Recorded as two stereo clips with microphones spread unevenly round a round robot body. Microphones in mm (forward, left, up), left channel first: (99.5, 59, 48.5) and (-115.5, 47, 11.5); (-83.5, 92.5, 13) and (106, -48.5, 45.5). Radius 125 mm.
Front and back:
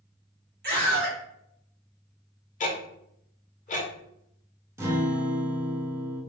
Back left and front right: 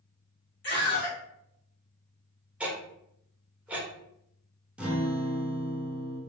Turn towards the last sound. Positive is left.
turn(degrees=-130)